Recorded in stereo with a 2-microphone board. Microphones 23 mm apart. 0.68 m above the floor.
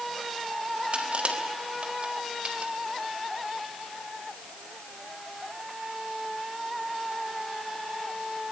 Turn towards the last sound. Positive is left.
turn(degrees=-60)  # may be behind; listen again after turning